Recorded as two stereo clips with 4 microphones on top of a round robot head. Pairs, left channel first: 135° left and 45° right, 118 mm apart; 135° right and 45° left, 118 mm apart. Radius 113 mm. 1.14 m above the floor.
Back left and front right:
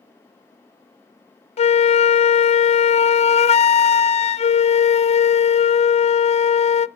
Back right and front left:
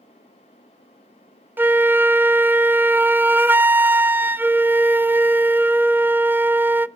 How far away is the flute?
About 0.5 m.